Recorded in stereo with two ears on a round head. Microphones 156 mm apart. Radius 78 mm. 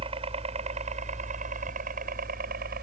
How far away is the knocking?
No knocking in this recording.